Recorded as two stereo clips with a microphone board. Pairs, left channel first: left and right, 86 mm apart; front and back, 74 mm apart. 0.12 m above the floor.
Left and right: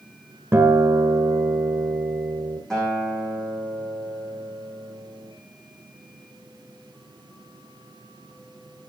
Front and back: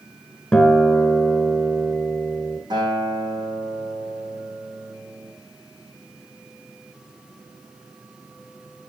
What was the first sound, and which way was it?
A guitar, 70° right.